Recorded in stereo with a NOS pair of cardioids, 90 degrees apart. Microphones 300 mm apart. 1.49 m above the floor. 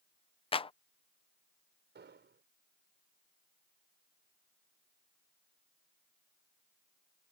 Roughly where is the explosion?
Ahead right.